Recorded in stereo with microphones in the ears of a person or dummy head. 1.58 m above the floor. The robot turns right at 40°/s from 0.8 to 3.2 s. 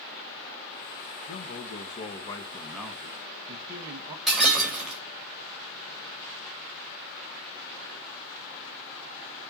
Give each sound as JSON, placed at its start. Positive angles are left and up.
{"t": 1.3, "sound": "a man speaking", "azimuth_deg": 120, "distance_m": 1.6}
{"t": 4.3, "sound": "breaking glass", "side_deg": 0, "distance_m": 4.0}